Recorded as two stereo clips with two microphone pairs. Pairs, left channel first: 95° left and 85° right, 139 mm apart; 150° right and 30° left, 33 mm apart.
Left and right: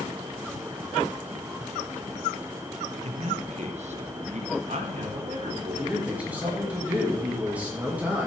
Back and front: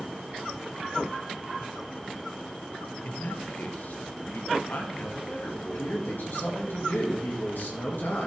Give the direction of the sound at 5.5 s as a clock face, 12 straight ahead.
5 o'clock.